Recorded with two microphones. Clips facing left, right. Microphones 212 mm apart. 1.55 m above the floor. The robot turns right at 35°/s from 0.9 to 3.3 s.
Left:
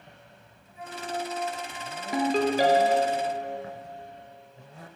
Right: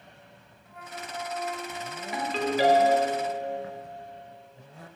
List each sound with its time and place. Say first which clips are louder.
0.7 s a flute: left 5 dB; 120° right, 0.8 m; by 2.0 s 80° right, 0.8 m
2.1 s a ringtone: left 4 dB; 75° left, 0.8 m; by 3.2 s 115° left, 0.8 m